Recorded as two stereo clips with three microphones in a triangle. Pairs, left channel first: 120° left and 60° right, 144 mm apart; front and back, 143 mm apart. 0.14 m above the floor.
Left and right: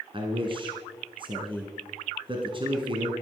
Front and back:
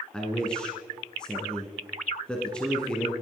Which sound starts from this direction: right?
A man speaking, at 0.1 s.